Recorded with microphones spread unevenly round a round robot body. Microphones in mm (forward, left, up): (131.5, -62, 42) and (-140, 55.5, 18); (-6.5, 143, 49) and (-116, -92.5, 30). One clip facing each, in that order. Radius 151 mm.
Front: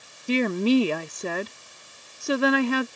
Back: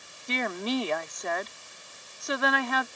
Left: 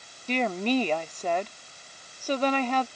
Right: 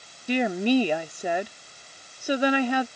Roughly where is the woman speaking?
Ahead right.